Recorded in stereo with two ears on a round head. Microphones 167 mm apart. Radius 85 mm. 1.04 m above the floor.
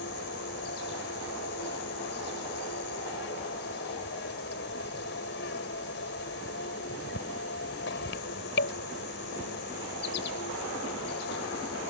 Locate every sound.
0.0 s an insect: 60° left (ahead or behind)